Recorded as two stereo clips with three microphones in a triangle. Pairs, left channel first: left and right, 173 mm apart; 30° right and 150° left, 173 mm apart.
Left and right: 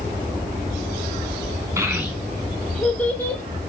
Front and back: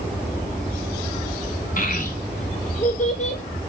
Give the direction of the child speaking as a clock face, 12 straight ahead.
1 o'clock.